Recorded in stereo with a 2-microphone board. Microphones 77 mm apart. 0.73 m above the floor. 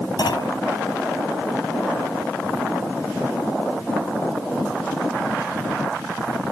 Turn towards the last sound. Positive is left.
turn(degrees=70)  # may be behind; listen again after turning